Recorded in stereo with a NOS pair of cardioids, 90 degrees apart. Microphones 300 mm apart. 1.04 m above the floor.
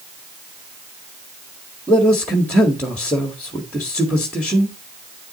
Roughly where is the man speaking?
Ahead.